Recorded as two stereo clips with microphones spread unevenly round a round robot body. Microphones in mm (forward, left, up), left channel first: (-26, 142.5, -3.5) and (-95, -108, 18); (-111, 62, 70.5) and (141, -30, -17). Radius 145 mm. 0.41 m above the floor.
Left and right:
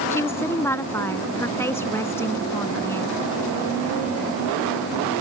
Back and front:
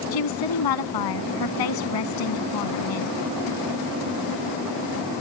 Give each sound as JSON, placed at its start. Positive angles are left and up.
{"t": 0.1, "sound": "a woman speaking", "azimuth_deg": 155}